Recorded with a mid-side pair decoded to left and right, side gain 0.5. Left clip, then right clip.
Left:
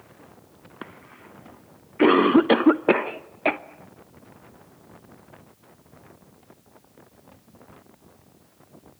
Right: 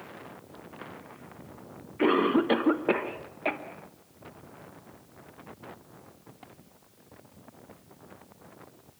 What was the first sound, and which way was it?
A cough, 40° left.